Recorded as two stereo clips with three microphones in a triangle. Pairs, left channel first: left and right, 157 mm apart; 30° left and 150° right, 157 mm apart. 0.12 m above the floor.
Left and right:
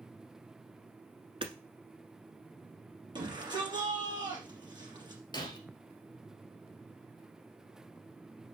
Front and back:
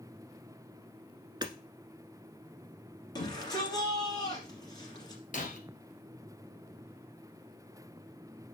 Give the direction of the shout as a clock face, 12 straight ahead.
1 o'clock.